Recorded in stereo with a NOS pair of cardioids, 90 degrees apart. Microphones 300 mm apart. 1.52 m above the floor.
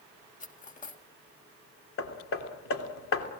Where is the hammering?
45° left, 3 m.